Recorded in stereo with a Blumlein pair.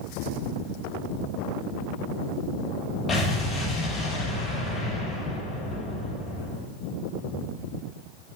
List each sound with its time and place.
3.1 s an explosion: 20° left, 4 m